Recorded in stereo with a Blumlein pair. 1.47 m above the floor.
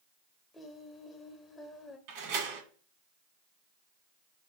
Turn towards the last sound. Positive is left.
turn(degrees=-45)